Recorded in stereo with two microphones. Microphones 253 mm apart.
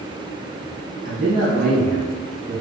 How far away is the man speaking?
About 1.7 m.